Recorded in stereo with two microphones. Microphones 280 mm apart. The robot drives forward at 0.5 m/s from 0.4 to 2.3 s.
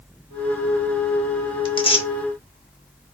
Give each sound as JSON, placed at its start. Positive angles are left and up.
{"t": 1.6, "sound": "tearing paper", "side_deg": 15, "distance_m": 0.6}